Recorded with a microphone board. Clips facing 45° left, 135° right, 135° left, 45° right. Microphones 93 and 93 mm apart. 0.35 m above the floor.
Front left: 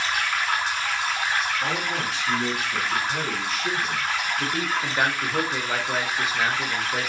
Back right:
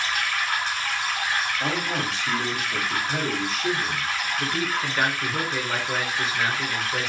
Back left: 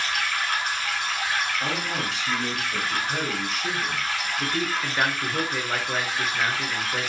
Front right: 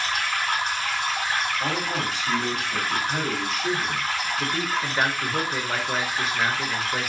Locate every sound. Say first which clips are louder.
0.0 s running water: front left 1 dB, front right 1 dB; 20° right, 1.3 m
1.6 s a man speaking: even, front right 2 dB; 130° right, 1.2 m
4.4 s a man speaking: even, back left 1 dB; straight ahead, 0.8 m